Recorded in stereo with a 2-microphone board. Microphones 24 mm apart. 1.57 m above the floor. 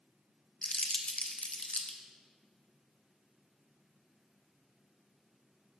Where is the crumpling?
55° left (ahead or behind), 1.1 m.